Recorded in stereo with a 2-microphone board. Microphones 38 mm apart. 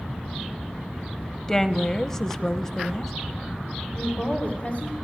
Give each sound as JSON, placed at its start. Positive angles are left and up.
{"t": 1.5, "sound": "a woman speaking", "side_deg": 15, "distance_m": 1.0}
{"t": 4.0, "sound": "a woman speaking", "side_deg": 35, "distance_m": 3.5}